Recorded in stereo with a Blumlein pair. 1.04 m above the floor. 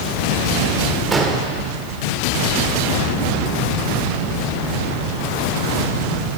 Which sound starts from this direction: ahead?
An explosion, at 1.1 s.